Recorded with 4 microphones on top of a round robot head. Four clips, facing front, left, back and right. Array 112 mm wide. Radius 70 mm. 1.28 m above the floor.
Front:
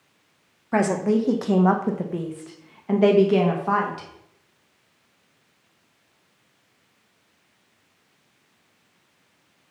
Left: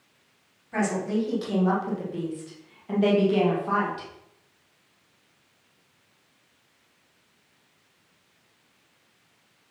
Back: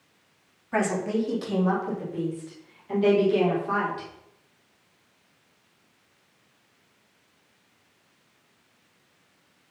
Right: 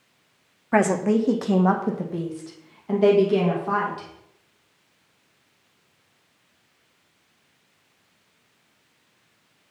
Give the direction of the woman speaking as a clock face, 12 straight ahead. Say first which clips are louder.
Right 7 dB, front 5 dB; 2 o'clock.